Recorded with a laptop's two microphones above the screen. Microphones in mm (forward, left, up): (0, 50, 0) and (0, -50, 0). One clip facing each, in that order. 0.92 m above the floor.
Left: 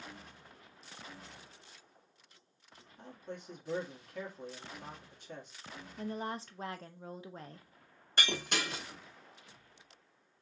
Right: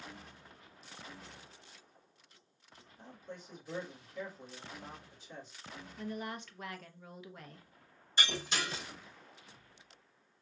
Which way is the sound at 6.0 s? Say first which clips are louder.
Left 2 dB; 35° left (ahead or behind).